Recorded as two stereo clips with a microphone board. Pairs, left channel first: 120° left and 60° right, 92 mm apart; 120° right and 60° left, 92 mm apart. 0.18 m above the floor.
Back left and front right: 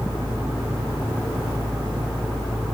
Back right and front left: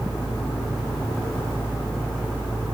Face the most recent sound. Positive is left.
No sound to turn to.